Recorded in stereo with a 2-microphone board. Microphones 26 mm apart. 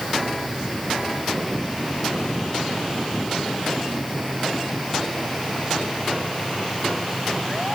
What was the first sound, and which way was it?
Only background noise.